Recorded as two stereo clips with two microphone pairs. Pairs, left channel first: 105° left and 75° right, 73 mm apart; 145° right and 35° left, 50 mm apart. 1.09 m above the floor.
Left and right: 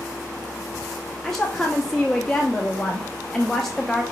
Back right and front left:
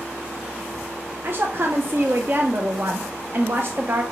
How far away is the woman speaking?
About 0.7 m.